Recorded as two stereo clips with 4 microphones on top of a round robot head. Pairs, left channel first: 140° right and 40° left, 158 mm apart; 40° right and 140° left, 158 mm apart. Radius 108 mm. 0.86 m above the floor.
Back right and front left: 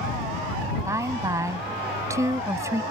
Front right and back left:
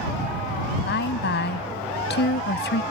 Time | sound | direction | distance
0.8 | a woman speaking | 30° right | ?